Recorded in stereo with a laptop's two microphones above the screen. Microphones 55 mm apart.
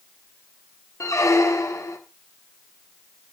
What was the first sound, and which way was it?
A squeak, 85° left.